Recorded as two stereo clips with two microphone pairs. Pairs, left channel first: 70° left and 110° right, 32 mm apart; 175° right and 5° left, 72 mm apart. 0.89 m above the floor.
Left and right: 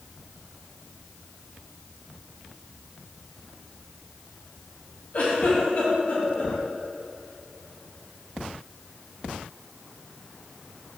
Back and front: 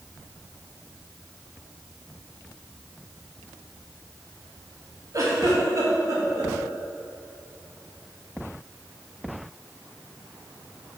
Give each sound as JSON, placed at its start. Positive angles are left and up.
{"t": 5.1, "sound": "a giggle", "azimuth_deg": 35, "distance_m": 2.5}